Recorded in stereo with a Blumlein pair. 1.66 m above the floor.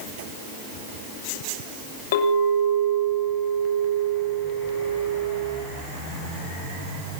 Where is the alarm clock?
I don't hear an alarm clock.